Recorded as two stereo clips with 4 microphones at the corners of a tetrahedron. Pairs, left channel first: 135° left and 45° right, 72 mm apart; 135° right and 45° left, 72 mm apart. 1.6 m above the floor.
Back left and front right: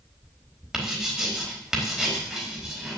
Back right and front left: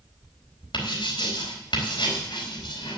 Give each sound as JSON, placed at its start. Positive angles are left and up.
{"t": 0.7, "sound": "writing", "azimuth_deg": -130, "distance_m": 4.0}